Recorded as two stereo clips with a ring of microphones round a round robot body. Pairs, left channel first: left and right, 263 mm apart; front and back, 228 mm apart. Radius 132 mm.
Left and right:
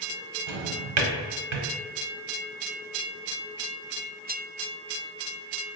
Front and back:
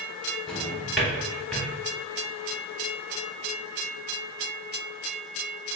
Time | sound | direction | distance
0.5 | a drawer | 90° right | 1.0 m